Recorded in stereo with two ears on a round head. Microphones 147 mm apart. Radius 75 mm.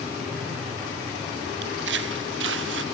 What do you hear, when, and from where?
1.6 s footsteps: 70° right (ahead or behind); by 2.8 s 80° right